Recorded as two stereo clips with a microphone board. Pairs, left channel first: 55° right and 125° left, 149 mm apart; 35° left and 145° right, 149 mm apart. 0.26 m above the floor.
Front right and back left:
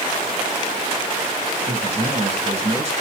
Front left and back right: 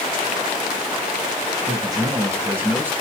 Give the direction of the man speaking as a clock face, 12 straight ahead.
7 o'clock.